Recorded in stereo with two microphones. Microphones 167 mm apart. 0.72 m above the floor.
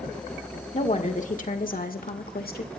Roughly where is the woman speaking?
Left.